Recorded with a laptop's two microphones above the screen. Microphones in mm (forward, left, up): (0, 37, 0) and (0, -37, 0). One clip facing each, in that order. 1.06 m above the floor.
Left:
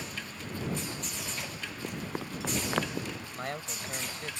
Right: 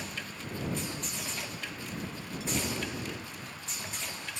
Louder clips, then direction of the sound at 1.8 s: Left 3 dB; 65° left (ahead or behind).